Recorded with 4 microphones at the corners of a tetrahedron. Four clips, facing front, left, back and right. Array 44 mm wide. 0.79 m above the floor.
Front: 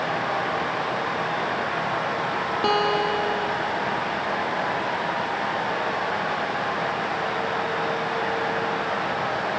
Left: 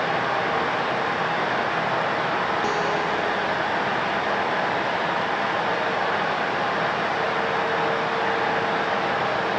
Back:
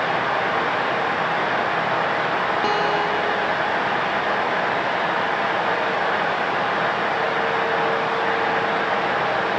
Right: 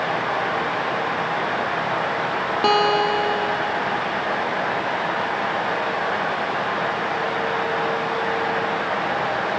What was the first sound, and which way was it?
A guitar, 90° right.